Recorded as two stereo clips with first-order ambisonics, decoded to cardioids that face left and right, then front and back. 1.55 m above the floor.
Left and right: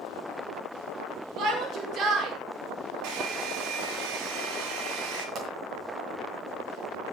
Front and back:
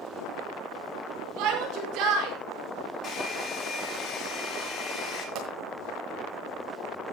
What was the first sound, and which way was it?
A shout, 145° right.